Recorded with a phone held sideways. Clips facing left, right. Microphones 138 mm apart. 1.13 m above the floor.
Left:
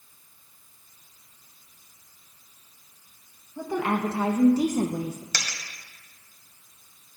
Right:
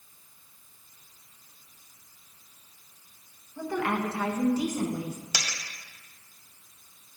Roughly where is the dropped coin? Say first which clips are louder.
Even; centre.